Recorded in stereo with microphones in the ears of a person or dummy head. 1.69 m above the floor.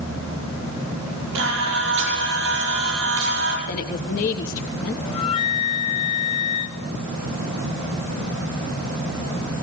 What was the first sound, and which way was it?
Singing, 70° right (ahead or behind).